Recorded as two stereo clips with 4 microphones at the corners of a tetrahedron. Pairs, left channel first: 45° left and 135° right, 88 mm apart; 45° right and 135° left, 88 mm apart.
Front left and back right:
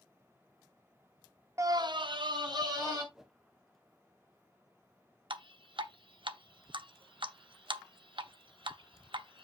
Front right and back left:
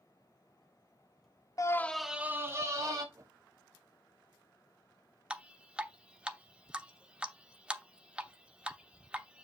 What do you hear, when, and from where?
1.6 s a scream: 85° right, 0.9 m; by 3.0 s 175° right, 2 m
3.1 s a whoosh: 145° left, 0.9 m
5.3 s dripping: 150° right, 0.8 m